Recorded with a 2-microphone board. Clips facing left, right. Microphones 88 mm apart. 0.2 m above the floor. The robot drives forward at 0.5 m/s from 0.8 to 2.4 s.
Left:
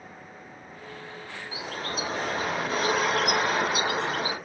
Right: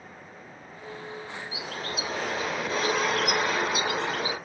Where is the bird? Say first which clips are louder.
Left 3 dB; 35° left (ahead or behind), 1.2 m; by 4.4 s 30° left (ahead or behind), 1.4 m.